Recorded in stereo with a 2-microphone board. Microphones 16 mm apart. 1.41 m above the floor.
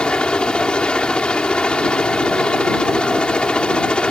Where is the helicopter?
70° left (ahead or behind).